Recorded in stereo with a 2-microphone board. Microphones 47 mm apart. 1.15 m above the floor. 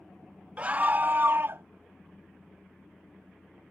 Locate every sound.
0.6 s a scream: 30° right (ahead or behind); by 1.6 s 55° right (ahead or behind)